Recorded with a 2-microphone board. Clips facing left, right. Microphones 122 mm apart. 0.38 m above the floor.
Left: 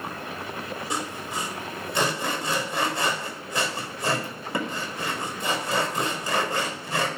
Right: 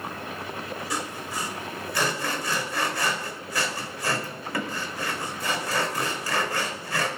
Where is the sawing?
25° left (ahead or behind), 1.9 m.